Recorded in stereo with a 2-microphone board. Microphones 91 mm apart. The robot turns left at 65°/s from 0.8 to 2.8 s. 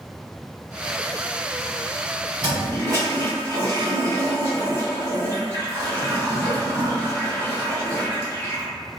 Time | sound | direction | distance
2.4 | a toilet flushing | 40° right (ahead or behind) | 1.4 m